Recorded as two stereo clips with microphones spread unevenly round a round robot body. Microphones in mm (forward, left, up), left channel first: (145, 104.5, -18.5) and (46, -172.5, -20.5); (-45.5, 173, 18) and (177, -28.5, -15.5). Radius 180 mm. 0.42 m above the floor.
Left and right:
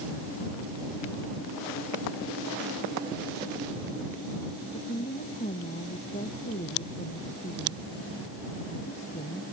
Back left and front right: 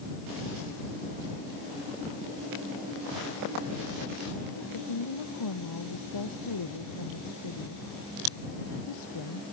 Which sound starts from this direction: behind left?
A woman speaking, at 4.7 s.